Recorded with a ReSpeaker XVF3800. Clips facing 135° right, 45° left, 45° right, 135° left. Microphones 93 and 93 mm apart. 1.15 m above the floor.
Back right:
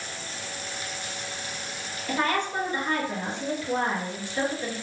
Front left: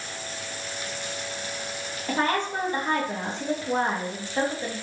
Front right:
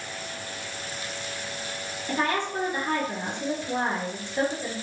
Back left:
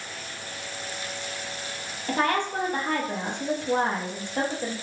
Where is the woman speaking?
100° left, 1.4 m.